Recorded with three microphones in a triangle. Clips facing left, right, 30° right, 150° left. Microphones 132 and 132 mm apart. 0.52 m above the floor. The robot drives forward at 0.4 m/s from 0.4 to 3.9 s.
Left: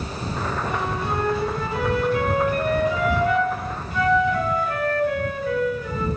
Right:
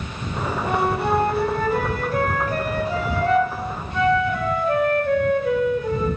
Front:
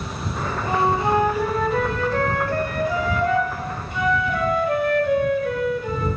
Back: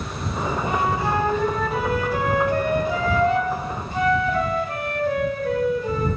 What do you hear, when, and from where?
0.7 s a flute: 85° right, 0.6 m; by 6.1 s 155° right, 1.4 m